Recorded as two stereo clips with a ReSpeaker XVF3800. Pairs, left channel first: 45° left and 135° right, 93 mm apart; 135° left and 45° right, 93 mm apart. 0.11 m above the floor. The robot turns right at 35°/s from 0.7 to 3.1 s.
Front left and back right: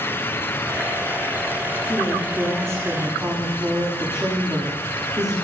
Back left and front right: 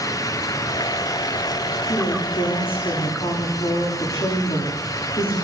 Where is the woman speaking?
100° left, 10 m; by 5.5 s 140° left, 10 m.